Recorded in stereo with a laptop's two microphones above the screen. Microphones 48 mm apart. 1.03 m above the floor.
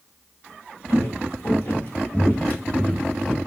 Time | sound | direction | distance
0.9 | footsteps | 60° left (ahead or behind) | 1.8 m